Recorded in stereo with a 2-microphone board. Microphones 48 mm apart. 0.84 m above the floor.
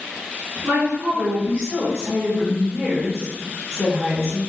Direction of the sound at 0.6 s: 60° right (ahead or behind).